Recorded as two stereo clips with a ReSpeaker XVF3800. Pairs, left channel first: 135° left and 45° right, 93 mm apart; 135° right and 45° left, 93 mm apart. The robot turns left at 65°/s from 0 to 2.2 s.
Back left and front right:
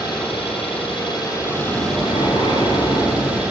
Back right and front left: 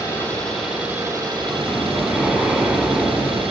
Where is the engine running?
Straight behind, 10 m; by 3.5 s 35° left, 10 m.